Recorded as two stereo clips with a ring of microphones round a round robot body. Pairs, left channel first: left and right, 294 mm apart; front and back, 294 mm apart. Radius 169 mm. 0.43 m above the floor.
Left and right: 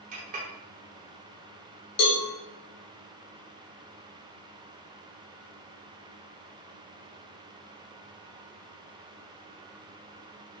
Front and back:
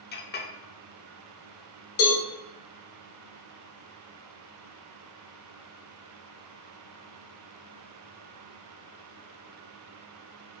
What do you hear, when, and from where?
0.1 s a clink: 40° right, 0.7 m
2.0 s a cowbell: 50° left, 0.8 m